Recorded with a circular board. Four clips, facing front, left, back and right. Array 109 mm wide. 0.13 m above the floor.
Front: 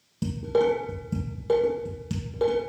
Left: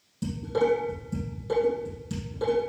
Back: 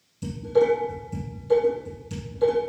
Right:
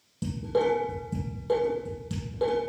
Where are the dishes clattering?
15° right, 3 m.